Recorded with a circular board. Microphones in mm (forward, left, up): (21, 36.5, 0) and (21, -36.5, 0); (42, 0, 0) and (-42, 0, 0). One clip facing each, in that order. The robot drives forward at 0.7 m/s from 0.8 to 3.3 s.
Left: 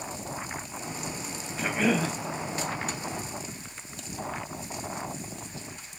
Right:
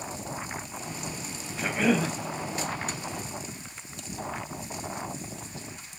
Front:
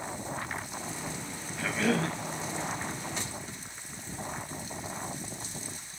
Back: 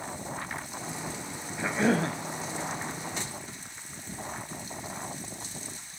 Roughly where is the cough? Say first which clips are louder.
Right 1 dB, back 3 dB; behind.